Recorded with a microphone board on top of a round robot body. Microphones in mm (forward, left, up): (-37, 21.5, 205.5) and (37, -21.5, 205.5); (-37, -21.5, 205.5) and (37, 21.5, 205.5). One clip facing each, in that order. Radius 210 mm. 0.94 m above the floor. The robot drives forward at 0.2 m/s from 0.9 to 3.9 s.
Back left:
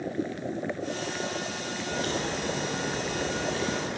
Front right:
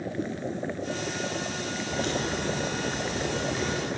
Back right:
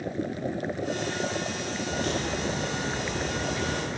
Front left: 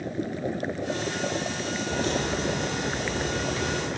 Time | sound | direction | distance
1.9 | a crack | 105° left | 0.7 m